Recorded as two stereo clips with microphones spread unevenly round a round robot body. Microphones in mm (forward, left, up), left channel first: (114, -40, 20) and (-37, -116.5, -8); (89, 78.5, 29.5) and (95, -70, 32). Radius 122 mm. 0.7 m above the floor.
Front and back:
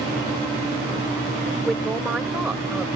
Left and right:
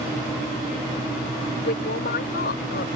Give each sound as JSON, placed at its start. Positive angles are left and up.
{"t": 1.6, "sound": "a man speaking", "azimuth_deg": 120}